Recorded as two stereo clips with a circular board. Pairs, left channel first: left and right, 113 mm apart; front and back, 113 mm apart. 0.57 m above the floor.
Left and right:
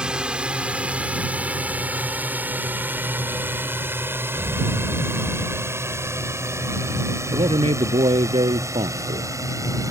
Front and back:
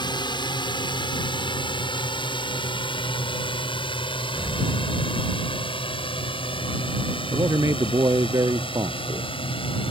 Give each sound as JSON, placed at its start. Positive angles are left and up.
{"t": 0.0, "sound": "a drone", "azimuth_deg": -10}
{"t": 4.3, "sound": "an explosion", "azimuth_deg": -110}
{"t": 7.3, "sound": "a man speaking", "azimuth_deg": -120}